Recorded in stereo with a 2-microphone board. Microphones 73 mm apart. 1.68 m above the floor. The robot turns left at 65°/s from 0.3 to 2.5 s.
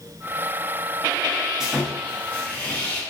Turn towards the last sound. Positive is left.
turn(degrees=135)